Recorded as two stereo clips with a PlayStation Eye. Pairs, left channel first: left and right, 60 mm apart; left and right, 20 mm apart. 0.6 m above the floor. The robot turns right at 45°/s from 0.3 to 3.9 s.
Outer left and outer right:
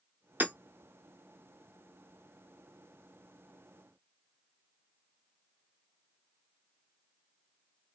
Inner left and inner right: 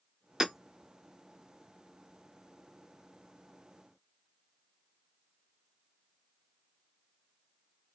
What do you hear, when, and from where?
0.4 s hammering: 30° right (ahead or behind), 1.3 m; by 0.5 s 25° right (ahead or behind), 1.3 m